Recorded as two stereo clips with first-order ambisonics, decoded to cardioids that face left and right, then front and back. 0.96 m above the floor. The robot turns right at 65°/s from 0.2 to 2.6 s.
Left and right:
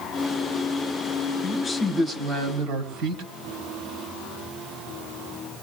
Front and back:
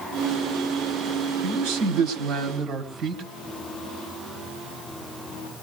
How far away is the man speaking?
About 3 m.